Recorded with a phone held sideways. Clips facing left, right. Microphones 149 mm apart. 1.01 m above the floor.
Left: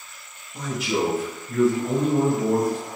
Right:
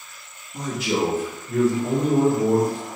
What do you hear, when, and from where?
0.5 s a man speaking: 55° right (ahead or behind), 2 m; by 2.8 s 75° right (ahead or behind), 3 m